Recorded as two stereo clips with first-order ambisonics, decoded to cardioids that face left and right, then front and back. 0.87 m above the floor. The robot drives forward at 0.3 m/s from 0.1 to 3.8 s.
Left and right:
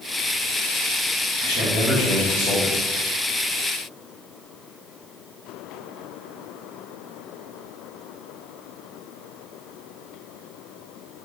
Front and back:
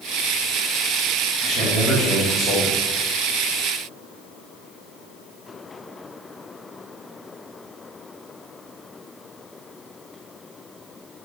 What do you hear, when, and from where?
1.4 s a man speaking: 95° left, 1.7 m; by 2.9 s 110° left, 1.8 m